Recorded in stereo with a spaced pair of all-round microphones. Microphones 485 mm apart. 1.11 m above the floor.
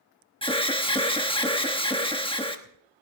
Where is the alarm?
10° left (ahead or behind), 1.1 m.